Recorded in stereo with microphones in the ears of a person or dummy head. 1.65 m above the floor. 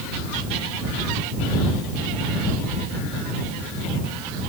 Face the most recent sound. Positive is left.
No sound to turn to.